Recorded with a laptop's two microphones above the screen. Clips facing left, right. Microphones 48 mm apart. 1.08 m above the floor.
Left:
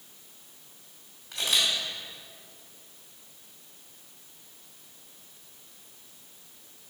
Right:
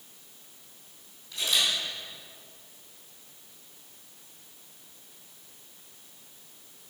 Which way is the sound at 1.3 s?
65° left (ahead or behind).